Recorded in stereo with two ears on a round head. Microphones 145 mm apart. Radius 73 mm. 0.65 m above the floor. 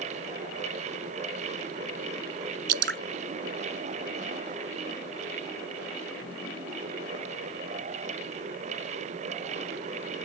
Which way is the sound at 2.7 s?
70° right (ahead or behind).